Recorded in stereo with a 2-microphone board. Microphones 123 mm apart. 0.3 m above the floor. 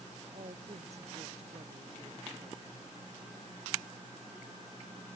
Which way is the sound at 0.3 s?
60° right (ahead or behind).